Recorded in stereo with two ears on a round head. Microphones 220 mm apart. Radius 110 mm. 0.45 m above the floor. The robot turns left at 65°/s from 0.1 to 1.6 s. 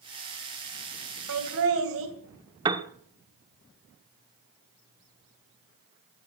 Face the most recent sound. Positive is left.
turn(degrees=-20)  # may be behind; listen again after turning